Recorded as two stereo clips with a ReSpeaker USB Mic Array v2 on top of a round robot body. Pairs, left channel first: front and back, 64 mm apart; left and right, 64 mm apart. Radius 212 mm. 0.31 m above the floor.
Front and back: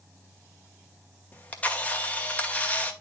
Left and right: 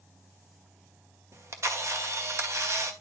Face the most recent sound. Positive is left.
turn(degrees=-65)